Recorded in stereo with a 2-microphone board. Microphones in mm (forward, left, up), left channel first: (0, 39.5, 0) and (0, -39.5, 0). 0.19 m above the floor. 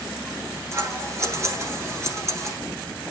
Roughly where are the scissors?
Right.